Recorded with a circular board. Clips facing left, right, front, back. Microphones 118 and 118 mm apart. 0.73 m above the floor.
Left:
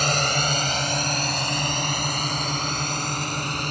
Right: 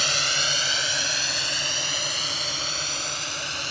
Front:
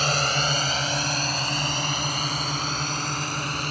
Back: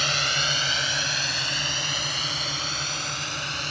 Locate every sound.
0.0 s a drone: 50° left